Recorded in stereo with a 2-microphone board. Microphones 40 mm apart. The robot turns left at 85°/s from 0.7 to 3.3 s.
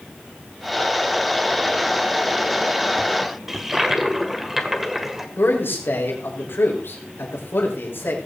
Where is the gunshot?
I don't hear a gunshot.